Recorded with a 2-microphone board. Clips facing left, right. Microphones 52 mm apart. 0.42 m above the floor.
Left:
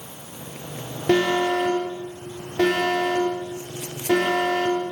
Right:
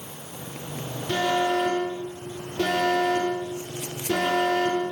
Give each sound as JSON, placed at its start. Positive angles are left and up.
{"t": 1.1, "sound": "an alarm", "side_deg": 80, "distance_m": 10.0}